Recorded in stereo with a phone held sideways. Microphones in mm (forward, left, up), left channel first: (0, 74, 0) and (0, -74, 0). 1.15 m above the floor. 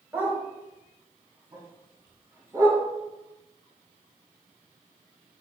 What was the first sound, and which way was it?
A dog barking, 10° right (ahead or behind).